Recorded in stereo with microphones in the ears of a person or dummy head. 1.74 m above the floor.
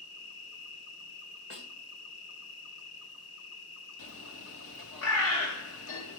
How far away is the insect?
About 0.8 m.